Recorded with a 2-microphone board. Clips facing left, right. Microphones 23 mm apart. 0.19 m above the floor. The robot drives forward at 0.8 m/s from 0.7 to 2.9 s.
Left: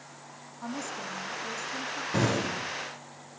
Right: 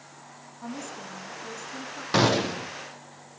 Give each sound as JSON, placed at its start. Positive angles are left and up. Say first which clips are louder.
{"t": 0.6, "sound": "a woman speaking", "louder": "left 2 dB", "side_deg": 15, "distance_m": 1.7}
{"t": 2.1, "sound": "a gunshot", "louder": "right 6 dB", "side_deg": -80, "distance_m": 1.6}